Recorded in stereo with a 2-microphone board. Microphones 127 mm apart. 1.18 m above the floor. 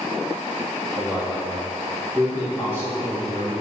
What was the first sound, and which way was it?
A man speaking, 35° right (ahead or behind).